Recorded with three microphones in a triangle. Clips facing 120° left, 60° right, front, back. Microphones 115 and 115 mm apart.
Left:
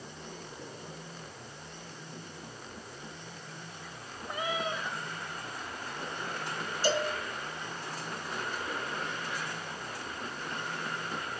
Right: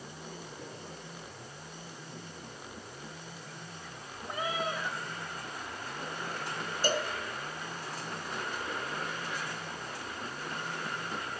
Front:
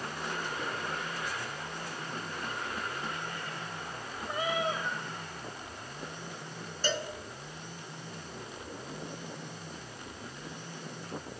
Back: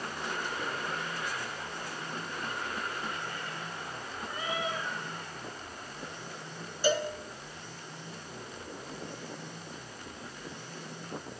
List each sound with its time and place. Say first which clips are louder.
4.3 s a cat meowing: even, front 4 dB; 10° right, 9 m
6.8 s a cowbell: left 2 dB, back 6 dB; 100° right, 3.5 m